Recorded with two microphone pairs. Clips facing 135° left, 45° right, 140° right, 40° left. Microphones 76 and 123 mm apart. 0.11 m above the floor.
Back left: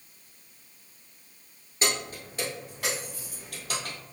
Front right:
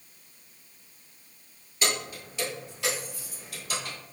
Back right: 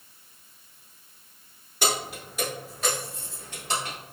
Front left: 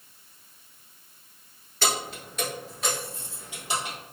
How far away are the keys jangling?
About 1.2 m.